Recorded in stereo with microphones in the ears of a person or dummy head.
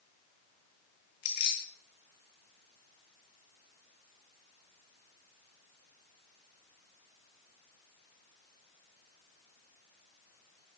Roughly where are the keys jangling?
Left.